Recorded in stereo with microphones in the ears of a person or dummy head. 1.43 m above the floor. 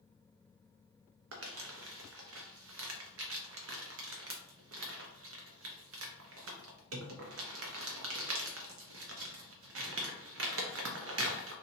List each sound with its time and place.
1.3 s crumpling: 70° right (ahead or behind), 0.6 m